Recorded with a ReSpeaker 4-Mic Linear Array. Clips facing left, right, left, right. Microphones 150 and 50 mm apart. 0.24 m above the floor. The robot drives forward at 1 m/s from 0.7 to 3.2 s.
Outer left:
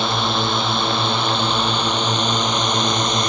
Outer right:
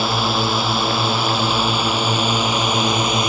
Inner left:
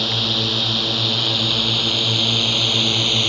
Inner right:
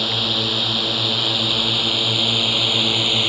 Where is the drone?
5° right (ahead or behind).